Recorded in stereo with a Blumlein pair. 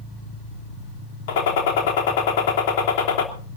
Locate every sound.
1.3 s a gunshot: 55° left, 3 m